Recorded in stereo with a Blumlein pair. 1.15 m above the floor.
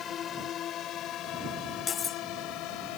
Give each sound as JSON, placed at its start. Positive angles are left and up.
{"t": 0.0, "sound": "a drone", "azimuth_deg": 25}
{"t": 1.9, "sound": "cutlery clinking", "azimuth_deg": 20}